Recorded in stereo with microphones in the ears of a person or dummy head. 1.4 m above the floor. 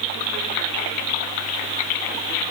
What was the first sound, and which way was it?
Only background noise.